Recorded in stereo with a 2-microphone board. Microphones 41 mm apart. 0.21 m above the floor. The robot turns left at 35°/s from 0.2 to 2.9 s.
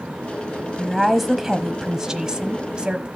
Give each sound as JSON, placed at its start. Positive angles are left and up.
{"t": 0.8, "sound": "a woman speaking", "side_deg": 5, "distance_m": 1.0}